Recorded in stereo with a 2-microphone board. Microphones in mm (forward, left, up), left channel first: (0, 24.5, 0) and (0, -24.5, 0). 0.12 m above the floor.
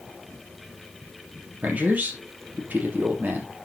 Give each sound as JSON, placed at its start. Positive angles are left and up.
{"t": 1.6, "sound": "a man speaking", "side_deg": -35, "distance_m": 3.0}